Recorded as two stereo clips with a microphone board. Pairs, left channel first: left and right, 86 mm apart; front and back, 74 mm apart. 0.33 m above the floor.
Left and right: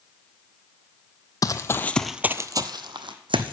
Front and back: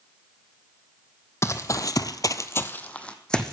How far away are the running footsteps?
About 0.8 m.